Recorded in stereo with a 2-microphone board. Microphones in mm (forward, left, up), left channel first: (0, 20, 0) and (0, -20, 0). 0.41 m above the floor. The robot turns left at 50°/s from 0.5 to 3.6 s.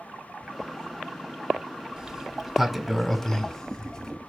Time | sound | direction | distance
2.0 | a sliding door | 20° right (ahead or behind) | 1.4 m